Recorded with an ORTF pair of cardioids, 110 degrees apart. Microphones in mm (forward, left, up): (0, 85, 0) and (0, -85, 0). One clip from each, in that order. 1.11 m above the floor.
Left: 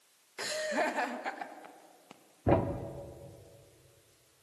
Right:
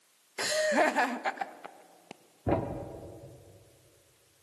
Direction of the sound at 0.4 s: 30° right.